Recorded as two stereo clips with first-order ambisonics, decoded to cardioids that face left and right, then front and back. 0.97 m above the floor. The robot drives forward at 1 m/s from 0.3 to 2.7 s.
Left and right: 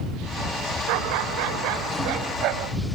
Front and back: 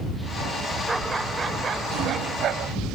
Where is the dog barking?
100° right; by 2.8 s 130° right.